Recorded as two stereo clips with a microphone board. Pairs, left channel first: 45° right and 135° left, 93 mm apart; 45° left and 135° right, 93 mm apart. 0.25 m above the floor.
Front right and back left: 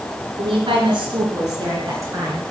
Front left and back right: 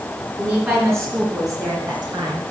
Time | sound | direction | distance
0.4 | a woman speaking | 155° left | 2.5 m